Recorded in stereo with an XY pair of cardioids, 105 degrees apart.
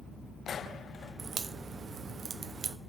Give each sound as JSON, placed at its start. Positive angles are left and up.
{"t": 1.2, "sound": "a crack", "azimuth_deg": -45, "distance_m": 0.6}